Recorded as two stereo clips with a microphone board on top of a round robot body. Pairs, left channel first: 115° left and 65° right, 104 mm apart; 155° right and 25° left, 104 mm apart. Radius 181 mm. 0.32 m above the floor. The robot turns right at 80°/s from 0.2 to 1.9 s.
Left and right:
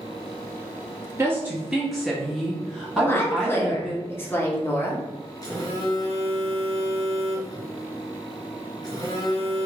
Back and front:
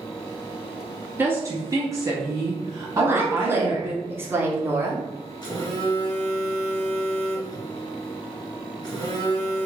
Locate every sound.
1.2 s a woman speaking: 30° right, 0.9 m; by 4.0 s 25° left, 0.9 m
3.0 s a woman speaking: 70° left, 1.0 m
5.4 s a phone buzzing: 160° left, 1.5 m